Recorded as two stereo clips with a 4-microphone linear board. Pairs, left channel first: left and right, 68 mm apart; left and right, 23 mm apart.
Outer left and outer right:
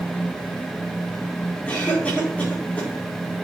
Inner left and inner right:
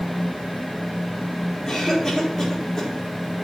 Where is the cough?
20° left (ahead or behind), 4 m.